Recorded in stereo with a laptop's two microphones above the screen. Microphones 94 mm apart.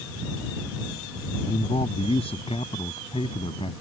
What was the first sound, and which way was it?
A man speaking, 85° left.